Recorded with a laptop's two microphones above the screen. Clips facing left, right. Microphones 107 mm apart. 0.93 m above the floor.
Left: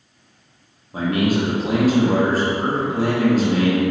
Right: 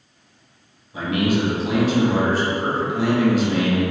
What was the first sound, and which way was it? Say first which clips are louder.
A man speaking: left 1 dB; 45° left (ahead or behind).